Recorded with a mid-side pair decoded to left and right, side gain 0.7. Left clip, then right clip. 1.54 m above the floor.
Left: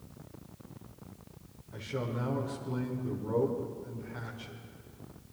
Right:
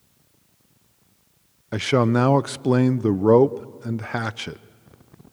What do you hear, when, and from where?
1.7 s a man speaking: 65° right, 0.6 m